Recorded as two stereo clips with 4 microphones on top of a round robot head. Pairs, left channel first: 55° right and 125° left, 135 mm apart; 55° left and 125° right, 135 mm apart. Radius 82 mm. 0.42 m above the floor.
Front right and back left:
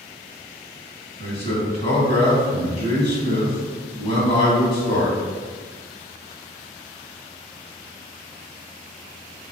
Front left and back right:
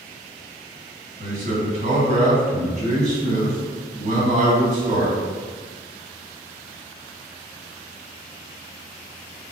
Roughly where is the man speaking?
Right.